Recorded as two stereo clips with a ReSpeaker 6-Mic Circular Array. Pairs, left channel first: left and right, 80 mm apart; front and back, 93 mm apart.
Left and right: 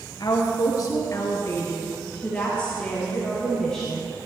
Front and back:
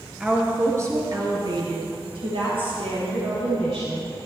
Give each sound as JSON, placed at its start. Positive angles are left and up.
{"t": 0.2, "sound": "a woman speaking", "azimuth_deg": 105, "distance_m": 3.0}